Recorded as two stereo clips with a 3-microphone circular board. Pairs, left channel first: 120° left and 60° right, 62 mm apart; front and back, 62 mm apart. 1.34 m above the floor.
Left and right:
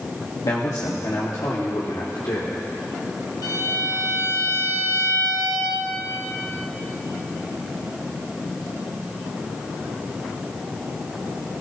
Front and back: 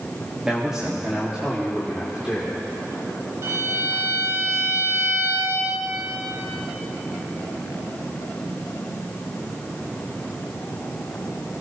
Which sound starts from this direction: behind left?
A violin, at 3.4 s.